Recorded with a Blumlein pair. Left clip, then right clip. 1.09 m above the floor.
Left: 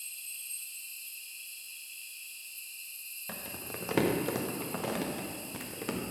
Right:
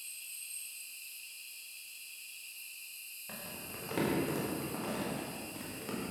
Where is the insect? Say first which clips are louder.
Left 3 dB; 65° left, 3 m.